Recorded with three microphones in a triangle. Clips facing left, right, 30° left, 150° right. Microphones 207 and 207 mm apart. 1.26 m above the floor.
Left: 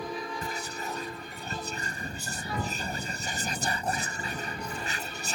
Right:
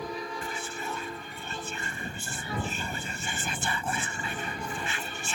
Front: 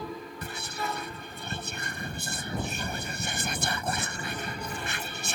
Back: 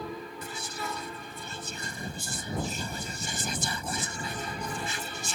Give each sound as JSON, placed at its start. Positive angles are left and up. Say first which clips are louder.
{"t": 0.4, "sound": "whispering", "louder": "even, front 2 dB", "azimuth_deg": 45}